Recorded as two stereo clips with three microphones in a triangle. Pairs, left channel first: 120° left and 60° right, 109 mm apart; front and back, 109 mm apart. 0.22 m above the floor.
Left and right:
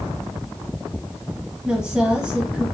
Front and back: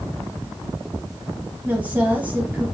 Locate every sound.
1.6 s a woman speaking: 130° right, 1.0 m